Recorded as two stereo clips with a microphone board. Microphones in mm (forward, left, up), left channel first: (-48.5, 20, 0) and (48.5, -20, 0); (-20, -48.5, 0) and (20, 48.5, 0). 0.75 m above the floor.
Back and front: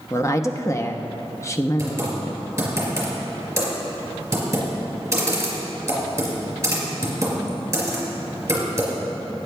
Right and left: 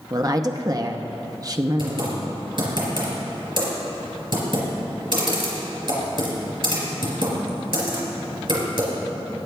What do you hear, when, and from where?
0.1 s a woman speaking: 105° left, 0.7 m
1.8 s typing on a keyboard: 40° left, 3.5 m